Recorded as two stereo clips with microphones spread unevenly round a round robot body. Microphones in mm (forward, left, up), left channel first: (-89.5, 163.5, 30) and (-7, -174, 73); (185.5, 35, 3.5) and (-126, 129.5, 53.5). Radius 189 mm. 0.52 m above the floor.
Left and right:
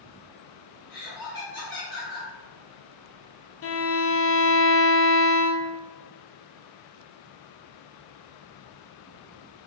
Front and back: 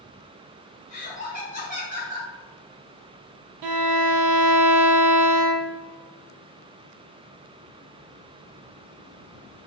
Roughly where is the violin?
Behind left.